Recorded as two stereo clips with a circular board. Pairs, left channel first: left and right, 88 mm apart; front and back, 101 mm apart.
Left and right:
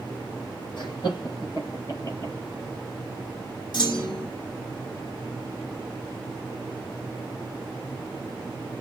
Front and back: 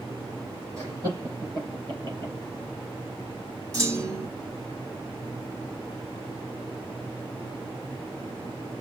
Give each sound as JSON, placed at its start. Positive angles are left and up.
{"t": 0.8, "sound": "laughter", "azimuth_deg": 120, "distance_m": 4.5}
{"t": 3.7, "sound": "a clunk", "azimuth_deg": 120, "distance_m": 3.5}